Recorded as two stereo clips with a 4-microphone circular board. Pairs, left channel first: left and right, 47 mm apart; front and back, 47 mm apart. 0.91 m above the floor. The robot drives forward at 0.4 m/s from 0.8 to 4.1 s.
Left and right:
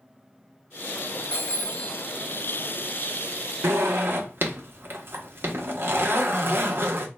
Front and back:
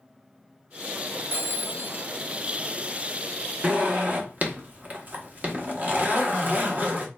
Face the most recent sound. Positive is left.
turn(degrees=-130)